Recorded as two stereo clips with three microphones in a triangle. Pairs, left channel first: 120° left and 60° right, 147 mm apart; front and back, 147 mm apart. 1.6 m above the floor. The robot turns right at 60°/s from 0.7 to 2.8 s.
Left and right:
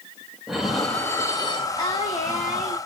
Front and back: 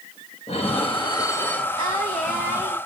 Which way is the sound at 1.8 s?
60° left.